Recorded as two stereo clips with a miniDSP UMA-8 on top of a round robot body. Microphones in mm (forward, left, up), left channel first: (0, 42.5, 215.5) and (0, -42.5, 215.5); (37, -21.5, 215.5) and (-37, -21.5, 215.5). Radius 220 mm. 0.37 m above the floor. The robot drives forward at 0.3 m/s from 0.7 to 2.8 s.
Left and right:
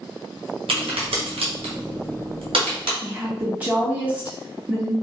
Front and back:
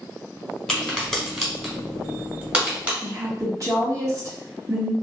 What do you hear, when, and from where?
0.7 s a crack: 80° right, 1.3 m; by 2.9 s 105° right, 1.3 m
3.0 s a woman speaking: 160° right, 1.9 m